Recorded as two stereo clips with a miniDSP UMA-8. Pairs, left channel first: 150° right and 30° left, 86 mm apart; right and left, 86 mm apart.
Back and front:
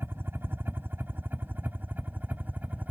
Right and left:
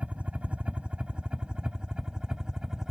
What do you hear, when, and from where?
0.0 s a helicopter: 35° left; by 2.9 s 25° left